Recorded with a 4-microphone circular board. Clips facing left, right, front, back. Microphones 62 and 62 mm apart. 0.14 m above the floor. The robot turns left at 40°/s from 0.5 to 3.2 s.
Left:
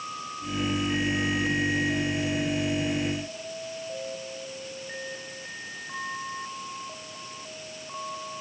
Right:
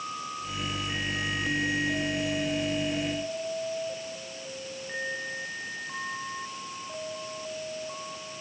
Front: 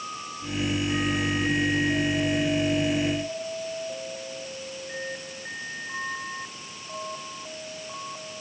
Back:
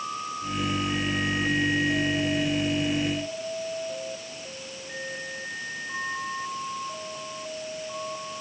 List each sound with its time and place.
Only background noise.